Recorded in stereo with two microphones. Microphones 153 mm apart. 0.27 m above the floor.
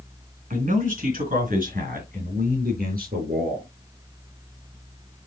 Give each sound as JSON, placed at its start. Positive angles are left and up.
{"t": 0.5, "sound": "a man speaking", "side_deg": -65, "distance_m": 3.0}